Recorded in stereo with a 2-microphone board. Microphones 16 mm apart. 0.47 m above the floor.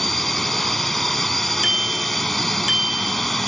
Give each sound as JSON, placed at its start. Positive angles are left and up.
{"t": 0.0, "sound": "a drone", "side_deg": 10}
{"t": 1.6, "sound": "a bicycle bell", "side_deg": -35}